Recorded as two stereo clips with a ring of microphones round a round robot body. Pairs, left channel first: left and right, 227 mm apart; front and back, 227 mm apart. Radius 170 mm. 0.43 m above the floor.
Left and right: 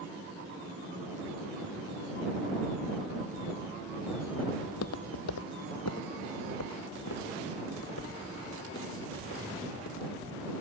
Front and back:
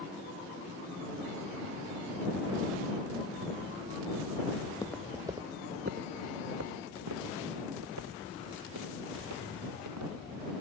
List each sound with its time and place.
4.6 s footsteps: 70° left; by 10.1 s 150° left